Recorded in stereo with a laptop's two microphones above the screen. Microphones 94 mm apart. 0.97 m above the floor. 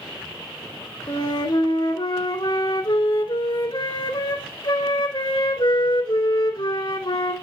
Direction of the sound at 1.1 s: 55° left (ahead or behind).